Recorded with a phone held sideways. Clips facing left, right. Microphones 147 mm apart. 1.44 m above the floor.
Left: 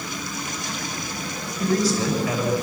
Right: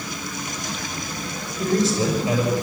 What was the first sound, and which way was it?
A man speaking, 25° right (ahead or behind).